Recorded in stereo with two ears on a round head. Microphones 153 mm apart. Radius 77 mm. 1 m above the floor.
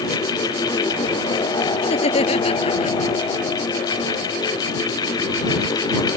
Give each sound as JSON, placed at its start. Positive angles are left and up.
{"t": 1.8, "sound": "laughter", "side_deg": 40}